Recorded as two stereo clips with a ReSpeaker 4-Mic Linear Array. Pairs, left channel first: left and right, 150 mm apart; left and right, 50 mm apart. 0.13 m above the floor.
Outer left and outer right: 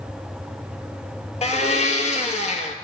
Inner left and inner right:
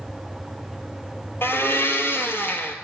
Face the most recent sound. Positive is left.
turn(degrees=50)  # may be behind; listen again after turning